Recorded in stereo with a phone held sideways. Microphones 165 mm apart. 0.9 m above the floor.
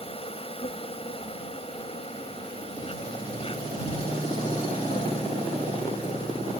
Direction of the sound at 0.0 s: 35° left (ahead or behind).